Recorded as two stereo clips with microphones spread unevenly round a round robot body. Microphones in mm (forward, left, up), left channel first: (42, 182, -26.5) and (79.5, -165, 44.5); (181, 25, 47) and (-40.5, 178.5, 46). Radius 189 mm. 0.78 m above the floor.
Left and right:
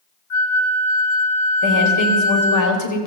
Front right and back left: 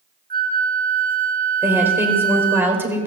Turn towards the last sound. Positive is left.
turn(degrees=65)